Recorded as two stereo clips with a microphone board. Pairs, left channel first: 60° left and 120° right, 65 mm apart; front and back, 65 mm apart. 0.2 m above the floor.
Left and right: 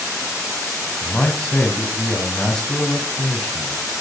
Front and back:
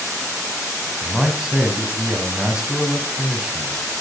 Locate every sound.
1.0 s a man speaking: 115° left, 1.4 m